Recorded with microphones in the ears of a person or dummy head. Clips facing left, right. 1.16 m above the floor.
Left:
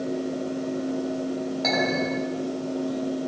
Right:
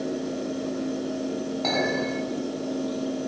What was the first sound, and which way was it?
A fan, 40° right (ahead or behind).